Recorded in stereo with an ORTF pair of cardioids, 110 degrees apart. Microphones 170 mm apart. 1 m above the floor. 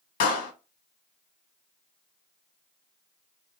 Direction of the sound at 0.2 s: 70° left.